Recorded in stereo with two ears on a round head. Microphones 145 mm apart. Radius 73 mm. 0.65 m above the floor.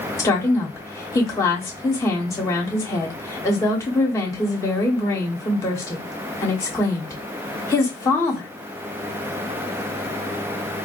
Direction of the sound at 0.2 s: 20° left (ahead or behind).